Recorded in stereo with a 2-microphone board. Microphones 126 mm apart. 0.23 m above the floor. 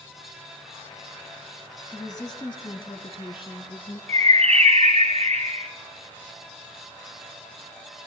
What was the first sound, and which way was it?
A woman speaking, 30° left (ahead or behind).